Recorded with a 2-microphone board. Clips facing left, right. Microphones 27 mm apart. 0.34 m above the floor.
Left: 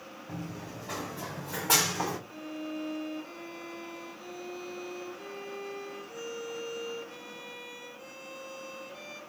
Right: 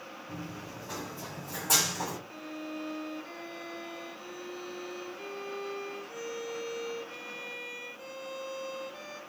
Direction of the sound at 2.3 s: 15° right (ahead or behind).